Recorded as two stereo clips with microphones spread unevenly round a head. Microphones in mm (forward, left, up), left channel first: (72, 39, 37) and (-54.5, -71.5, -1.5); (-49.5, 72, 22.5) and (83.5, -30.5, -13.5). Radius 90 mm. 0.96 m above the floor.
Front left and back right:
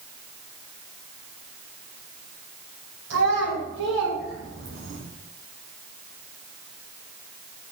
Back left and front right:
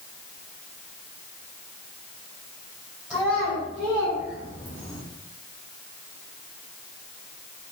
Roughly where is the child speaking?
Behind right.